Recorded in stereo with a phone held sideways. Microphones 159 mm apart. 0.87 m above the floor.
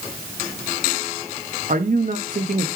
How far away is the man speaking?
About 0.8 m.